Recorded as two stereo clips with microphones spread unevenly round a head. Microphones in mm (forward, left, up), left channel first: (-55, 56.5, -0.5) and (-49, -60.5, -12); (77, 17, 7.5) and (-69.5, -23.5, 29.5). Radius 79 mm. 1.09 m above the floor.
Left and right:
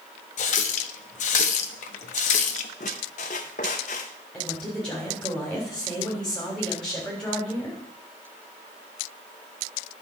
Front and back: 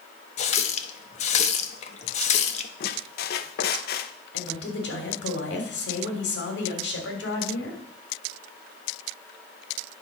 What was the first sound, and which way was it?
A running tap, 65° left.